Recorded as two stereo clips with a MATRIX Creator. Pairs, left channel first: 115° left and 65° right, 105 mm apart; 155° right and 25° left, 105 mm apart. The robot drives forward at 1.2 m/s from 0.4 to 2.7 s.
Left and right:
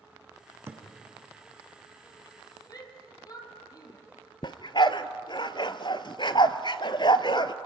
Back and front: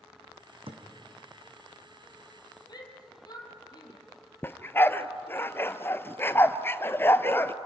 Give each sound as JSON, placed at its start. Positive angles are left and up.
{"t": 0.7, "sound": "a thud", "azimuth_deg": 0, "distance_m": 3.0}
{"t": 2.7, "sound": "a shout", "azimuth_deg": 160, "distance_m": 4.0}
{"t": 4.4, "sound": "a dog barking", "azimuth_deg": 140, "distance_m": 0.7}